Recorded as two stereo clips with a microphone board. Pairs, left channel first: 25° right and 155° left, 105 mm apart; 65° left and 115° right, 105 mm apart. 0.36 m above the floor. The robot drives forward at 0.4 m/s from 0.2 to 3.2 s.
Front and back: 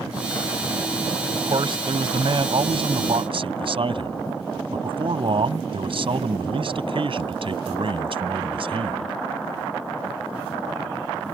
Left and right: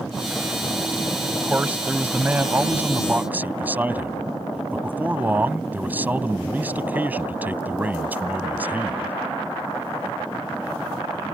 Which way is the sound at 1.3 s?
175° left.